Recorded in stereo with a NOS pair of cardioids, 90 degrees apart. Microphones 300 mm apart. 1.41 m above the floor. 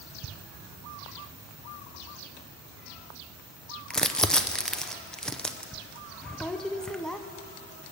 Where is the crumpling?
Straight ahead, 0.7 m.